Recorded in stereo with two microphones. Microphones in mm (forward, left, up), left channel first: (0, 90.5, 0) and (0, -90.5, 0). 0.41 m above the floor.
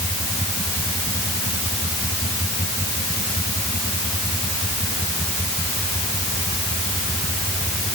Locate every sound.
Only background noise.